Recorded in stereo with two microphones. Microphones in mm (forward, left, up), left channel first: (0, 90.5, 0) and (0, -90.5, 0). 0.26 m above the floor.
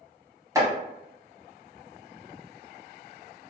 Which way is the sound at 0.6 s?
15° right (ahead or behind).